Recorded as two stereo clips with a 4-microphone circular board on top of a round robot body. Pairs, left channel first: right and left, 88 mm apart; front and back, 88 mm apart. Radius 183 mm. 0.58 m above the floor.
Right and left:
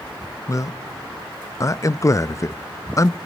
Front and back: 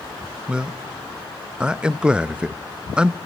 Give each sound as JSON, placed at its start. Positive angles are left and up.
{"t": 0.5, "sound": "a man speaking", "azimuth_deg": -105, "distance_m": 0.8}